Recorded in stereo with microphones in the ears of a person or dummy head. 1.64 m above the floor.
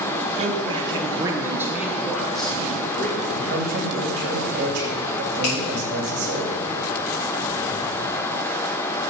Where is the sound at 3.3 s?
60° right (ahead or behind), 3 m.